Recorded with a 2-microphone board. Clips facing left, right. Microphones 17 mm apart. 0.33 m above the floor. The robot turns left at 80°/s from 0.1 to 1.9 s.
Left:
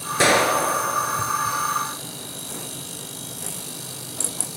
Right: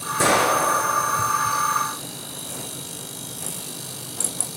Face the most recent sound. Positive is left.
turn(degrees=-95)